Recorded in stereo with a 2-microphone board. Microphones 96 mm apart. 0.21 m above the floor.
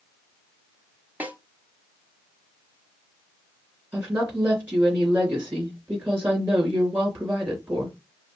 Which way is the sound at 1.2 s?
15° right (ahead or behind).